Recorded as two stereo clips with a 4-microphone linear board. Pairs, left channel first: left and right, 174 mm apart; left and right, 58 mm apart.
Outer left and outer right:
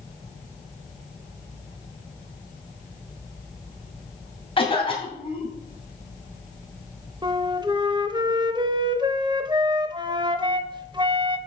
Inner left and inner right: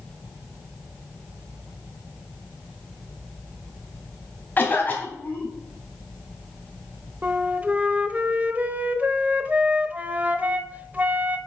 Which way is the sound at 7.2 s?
25° right (ahead or behind).